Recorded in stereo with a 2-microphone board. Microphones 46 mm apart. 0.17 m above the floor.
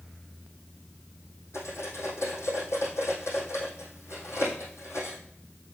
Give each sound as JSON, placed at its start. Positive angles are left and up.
{"t": 1.5, "sound": "cutlery clinking", "side_deg": 80, "distance_m": 3.5}